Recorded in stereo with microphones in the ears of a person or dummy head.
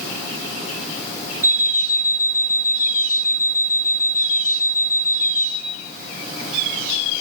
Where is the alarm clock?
15° right (ahead or behind), 3 m.